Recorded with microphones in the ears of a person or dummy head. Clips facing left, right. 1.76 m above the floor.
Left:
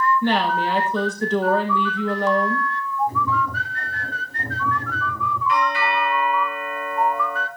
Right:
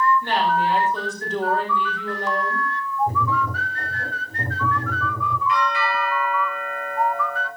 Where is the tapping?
45° right (ahead or behind), 5.5 m.